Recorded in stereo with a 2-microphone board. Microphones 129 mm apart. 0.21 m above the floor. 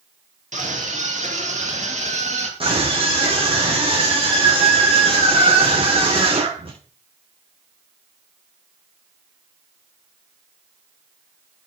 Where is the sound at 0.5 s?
75° right (ahead or behind), 5.5 m; by 2.5 s 65° right (ahead or behind), 5 m.